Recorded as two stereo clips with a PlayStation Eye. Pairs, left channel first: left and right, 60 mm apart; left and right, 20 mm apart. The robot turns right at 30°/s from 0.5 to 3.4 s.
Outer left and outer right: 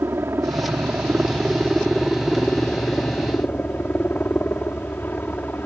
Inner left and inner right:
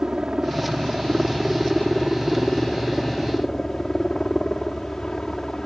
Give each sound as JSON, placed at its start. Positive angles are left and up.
{"t": 0.0, "sound": "a helicopter", "azimuth_deg": -50}